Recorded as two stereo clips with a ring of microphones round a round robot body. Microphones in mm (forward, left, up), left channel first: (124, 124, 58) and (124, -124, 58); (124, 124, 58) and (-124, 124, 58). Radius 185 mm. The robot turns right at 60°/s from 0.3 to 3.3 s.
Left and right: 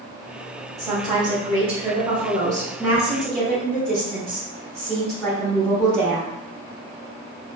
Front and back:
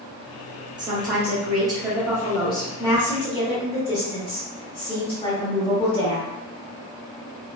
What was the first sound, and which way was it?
A woman speaking, 145° right.